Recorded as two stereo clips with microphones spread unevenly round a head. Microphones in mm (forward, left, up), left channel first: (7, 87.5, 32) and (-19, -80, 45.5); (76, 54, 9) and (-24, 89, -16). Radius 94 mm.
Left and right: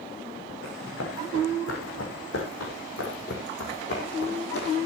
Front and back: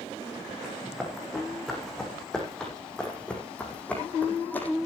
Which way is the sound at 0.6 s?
70° left.